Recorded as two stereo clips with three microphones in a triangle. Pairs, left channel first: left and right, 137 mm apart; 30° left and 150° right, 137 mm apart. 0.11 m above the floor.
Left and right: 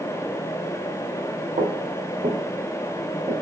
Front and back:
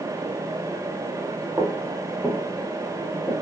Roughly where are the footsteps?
Right.